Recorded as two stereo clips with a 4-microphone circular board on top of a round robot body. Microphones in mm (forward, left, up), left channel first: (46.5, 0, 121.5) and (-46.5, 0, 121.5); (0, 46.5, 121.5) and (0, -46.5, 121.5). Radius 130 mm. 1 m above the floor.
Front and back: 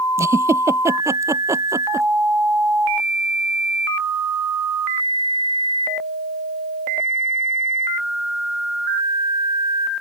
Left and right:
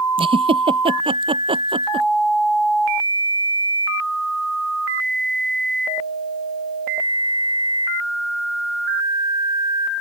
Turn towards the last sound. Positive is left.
turn(degrees=-120)